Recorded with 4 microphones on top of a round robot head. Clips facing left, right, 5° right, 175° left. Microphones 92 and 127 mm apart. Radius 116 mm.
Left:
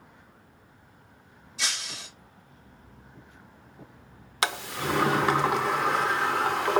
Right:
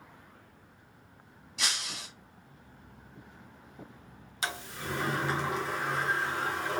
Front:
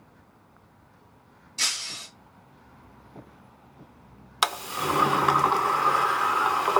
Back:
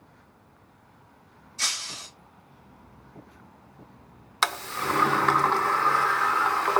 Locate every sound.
1.6 s breaking glass: 40° right, 1.1 m
4.4 s a sliding door: 75° left, 0.5 m